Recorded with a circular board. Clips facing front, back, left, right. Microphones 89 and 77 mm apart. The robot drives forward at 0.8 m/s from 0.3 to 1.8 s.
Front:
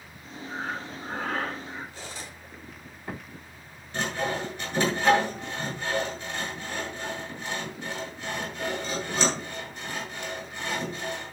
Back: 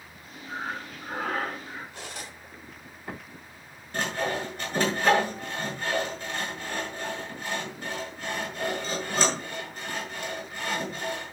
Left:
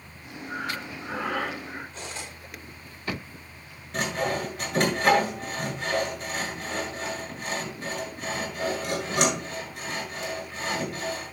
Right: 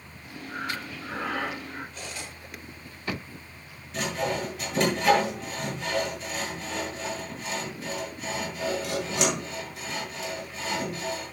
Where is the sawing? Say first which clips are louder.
Even, left 1 dB; 135° left, 8 m.